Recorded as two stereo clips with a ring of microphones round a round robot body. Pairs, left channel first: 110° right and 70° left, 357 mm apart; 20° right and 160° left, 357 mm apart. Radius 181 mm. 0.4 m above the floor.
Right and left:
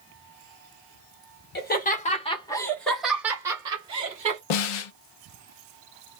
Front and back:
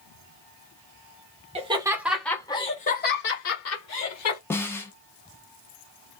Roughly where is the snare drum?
Right.